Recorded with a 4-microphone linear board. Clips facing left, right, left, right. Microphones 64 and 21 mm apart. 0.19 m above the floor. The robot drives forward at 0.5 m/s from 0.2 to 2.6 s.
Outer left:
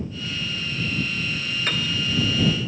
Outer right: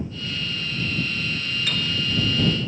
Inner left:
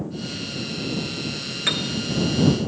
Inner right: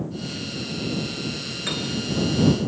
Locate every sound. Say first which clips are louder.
1.7 s a piano: outer left 2 dB, inner left 5 dB; 40° left (ahead or behind), 1.3 m